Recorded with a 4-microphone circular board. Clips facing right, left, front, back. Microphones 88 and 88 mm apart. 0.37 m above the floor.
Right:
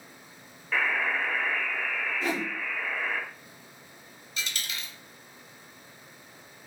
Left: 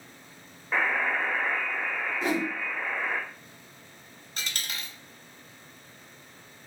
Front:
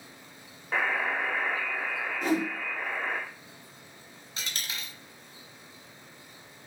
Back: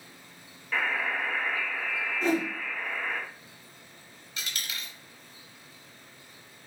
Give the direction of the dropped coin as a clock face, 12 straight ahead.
10 o'clock.